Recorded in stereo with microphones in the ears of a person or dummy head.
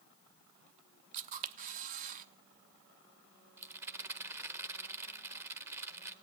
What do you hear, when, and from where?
1.1 s a camera shutter: 50° right (ahead or behind), 1.0 m
3.6 s a rattle: 20° right (ahead or behind), 0.9 m